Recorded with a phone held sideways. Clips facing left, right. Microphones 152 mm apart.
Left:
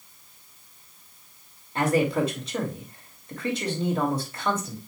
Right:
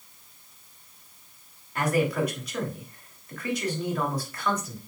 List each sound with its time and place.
1.8 s a man speaking: 25° left (ahead or behind), 3 m